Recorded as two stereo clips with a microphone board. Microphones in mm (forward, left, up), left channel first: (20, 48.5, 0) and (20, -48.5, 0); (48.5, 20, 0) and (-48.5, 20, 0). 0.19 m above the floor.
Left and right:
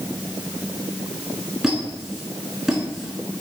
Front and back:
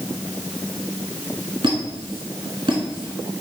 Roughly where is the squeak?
Behind.